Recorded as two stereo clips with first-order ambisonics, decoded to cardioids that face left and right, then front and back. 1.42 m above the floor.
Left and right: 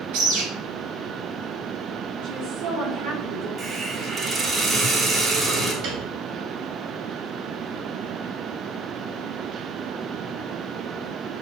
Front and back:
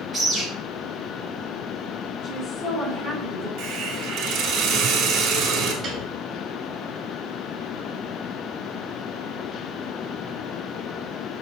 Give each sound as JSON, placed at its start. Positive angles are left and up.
{"t": 0.1, "sound": "a bird", "azimuth_deg": -95, "distance_m": 4.0}
{"t": 2.2, "sound": "a woman speaking", "azimuth_deg": -80, "distance_m": 4.5}
{"t": 3.6, "sound": "a hiss", "azimuth_deg": -150, "distance_m": 2.5}
{"t": 5.8, "sound": "a piano", "azimuth_deg": -120, "distance_m": 2.5}